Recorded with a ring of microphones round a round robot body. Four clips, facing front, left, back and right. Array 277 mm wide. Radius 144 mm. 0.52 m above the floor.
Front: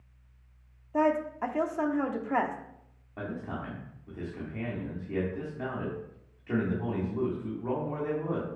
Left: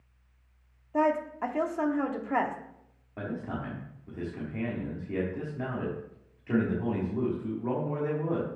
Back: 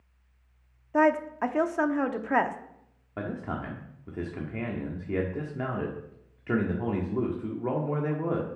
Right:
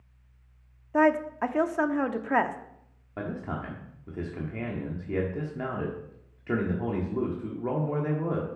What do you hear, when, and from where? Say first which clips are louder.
0.9 s a woman speaking: right 4 dB, back 3 dB; 135° right, 0.9 m
3.2 s a man speaking: right 1 dB, back 3 dB; 145° right, 1.4 m